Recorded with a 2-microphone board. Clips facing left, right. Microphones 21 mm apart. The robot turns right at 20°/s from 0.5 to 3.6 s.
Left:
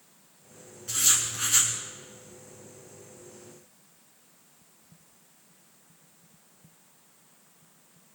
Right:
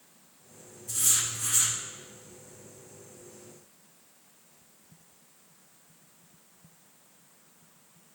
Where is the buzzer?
I don't hear a buzzer.